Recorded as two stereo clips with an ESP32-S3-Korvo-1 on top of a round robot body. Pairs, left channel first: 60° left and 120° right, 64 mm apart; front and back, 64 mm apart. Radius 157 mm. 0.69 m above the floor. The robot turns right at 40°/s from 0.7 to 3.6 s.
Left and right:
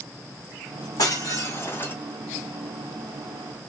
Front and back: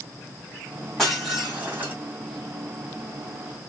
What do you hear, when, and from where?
1.0 s breaking glass: 85° left, 1.8 m; by 1.9 s 120° left, 1.8 m